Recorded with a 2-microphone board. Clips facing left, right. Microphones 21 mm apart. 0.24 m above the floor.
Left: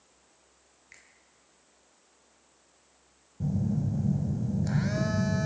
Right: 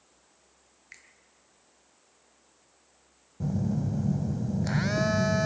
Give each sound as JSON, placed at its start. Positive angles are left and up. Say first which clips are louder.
{"t": 0.9, "sound": "a finger snap", "louder": "right 4 dB", "side_deg": -20, "distance_m": 3.0}
{"t": 3.4, "sound": "a phone buzzing", "louder": "even", "side_deg": -25, "distance_m": 0.8}